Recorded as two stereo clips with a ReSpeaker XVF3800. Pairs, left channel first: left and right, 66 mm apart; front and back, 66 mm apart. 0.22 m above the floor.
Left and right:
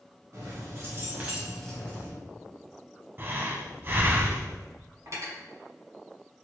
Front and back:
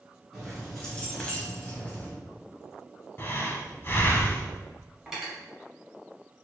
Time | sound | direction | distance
0.3 | keys jangling | 85° right | 1.3 m
3.2 | breathing | 45° right | 0.5 m
5.1 | cutlery clinking | 100° right | 1.2 m